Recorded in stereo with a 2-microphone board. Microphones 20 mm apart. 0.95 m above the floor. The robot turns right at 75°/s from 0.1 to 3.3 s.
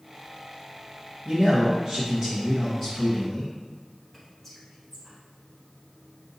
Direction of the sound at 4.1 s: 15° left (ahead or behind).